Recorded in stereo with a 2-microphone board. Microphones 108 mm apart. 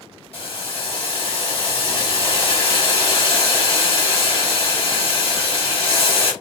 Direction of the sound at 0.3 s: 60° left (ahead or behind).